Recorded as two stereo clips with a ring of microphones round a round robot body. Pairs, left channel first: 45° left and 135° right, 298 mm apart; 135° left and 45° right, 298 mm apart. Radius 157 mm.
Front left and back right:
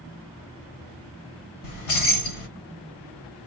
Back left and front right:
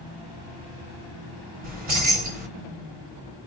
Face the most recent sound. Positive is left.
turn(degrees=15)